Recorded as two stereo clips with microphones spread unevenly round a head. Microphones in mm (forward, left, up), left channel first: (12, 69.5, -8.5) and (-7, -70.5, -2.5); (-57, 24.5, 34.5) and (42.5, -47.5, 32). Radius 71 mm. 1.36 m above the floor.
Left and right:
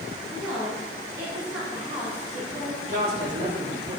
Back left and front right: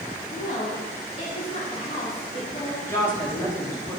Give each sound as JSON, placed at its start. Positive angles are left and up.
{"t": 0.3, "sound": "a woman speaking", "azimuth_deg": -175, "distance_m": 3.5}
{"t": 2.9, "sound": "a woman speaking", "azimuth_deg": -145, "distance_m": 4.0}